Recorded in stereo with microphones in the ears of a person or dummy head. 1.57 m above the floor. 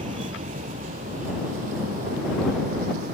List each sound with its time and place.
0.0 s a vehicle: 35° right (ahead or behind); by 3.1 s 45° right (ahead or behind)